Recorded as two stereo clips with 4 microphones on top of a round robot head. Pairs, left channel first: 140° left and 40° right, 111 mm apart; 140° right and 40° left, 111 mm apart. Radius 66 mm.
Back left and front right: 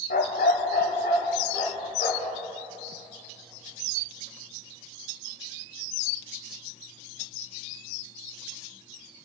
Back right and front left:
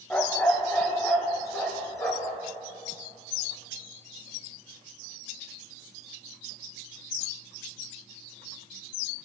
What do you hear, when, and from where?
0.1 s a dog barking: 145° left, 1.4 m; by 2.4 s 155° left, 4 m